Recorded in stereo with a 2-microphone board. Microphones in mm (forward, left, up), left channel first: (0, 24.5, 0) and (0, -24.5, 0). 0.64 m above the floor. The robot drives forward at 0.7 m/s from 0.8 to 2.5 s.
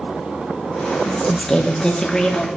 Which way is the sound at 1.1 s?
15° left (ahead or behind).